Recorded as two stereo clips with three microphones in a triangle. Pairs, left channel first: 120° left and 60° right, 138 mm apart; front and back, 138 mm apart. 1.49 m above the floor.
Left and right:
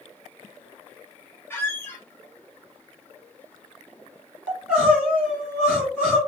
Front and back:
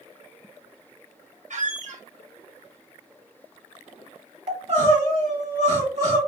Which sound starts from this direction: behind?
A squeak, at 1.5 s.